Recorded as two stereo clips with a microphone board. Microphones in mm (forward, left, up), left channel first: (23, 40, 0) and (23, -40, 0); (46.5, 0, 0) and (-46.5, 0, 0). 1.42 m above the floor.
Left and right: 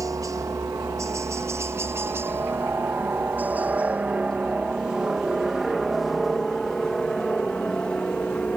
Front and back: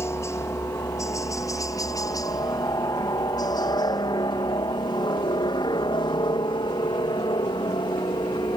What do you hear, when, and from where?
0.0 s a helicopter: 55° right; by 8.6 s 15° left